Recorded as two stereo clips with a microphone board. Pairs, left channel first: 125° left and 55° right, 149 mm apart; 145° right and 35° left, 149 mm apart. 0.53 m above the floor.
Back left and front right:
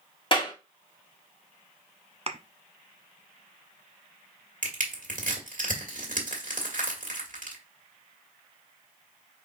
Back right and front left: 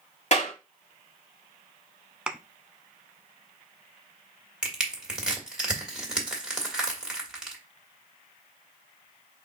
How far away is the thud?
About 0.5 m.